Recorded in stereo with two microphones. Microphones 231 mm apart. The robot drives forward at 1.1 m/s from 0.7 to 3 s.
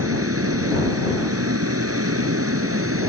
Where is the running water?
80° right; by 3.1 s 75° right (ahead or behind).